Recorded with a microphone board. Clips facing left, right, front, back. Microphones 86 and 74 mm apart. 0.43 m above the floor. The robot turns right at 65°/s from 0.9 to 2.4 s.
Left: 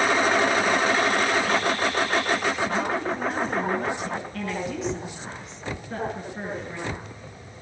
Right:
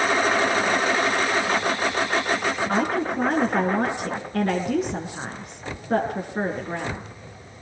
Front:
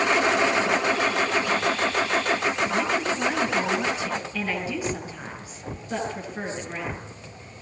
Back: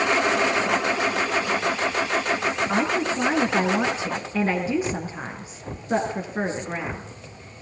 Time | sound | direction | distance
2.7 | a woman speaking | 130° right | 5.5 m